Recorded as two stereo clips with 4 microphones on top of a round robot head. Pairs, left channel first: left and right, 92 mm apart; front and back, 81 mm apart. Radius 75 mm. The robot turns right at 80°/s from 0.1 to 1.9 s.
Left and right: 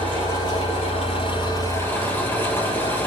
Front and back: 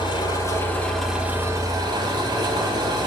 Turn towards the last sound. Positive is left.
turn(degrees=155)